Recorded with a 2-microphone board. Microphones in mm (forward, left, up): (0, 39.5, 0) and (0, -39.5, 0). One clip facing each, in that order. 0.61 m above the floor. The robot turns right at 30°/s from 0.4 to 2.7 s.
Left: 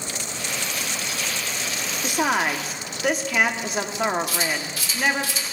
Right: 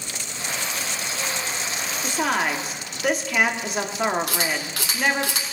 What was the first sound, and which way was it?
A woman speaking, 15° left (ahead or behind).